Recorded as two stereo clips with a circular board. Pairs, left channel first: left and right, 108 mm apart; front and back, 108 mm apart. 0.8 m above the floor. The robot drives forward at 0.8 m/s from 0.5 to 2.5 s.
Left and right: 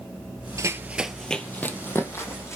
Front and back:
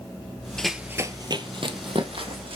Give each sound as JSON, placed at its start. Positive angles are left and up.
{"t": 0.6, "sound": "running footsteps", "azimuth_deg": -80, "distance_m": 0.8}